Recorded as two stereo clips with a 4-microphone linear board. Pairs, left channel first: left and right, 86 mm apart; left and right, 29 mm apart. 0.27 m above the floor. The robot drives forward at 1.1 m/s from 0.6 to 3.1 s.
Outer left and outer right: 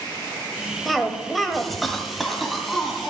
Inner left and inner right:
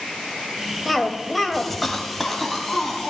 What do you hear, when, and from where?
0.8 s a cough: centre (ahead or behind), 1.0 m